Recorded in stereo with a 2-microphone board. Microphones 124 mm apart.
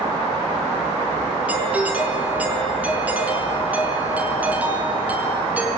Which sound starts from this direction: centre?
A doorbell, at 1.5 s.